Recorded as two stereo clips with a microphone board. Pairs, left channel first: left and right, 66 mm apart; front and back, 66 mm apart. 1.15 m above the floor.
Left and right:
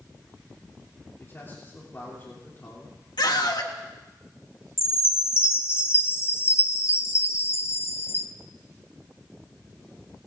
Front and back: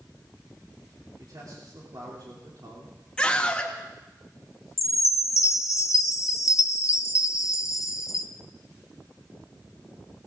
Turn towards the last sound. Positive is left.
turn(degrees=35)